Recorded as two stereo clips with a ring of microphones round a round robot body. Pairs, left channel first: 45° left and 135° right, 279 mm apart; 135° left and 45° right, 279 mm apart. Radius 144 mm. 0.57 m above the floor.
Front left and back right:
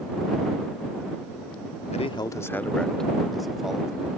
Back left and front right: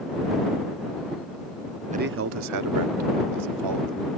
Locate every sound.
1.9 s a man speaking: straight ahead; by 4.1 s 50° right